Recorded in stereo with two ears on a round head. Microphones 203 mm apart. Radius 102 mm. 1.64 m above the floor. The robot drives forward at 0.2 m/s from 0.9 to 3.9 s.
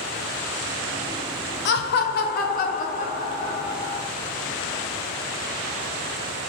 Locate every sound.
1.6 s laughter: 50° left (ahead or behind), 0.5 m; by 4.0 s 30° left (ahead or behind), 0.9 m